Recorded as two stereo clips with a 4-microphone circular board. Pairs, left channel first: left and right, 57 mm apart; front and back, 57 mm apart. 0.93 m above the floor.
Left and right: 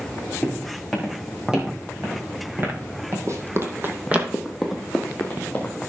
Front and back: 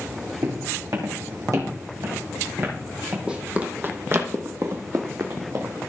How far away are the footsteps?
About 3.5 m.